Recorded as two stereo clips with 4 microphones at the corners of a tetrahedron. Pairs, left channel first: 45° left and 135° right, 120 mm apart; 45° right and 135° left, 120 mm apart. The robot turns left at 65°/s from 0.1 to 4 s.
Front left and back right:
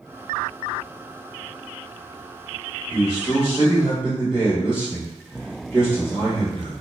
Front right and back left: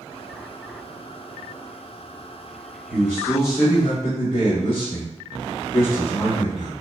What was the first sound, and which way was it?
A man speaking, 20° left.